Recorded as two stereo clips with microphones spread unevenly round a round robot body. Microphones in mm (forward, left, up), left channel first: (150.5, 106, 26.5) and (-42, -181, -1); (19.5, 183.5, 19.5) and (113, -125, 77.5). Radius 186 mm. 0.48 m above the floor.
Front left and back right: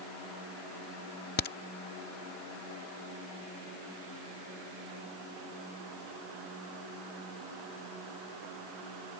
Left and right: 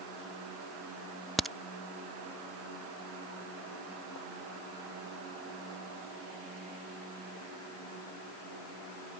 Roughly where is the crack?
Ahead left.